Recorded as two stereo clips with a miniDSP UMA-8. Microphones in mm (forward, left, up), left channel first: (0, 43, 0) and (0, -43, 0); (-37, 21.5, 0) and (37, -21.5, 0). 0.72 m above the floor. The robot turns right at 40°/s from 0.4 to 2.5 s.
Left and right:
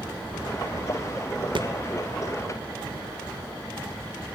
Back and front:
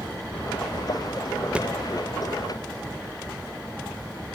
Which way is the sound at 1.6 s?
105° right.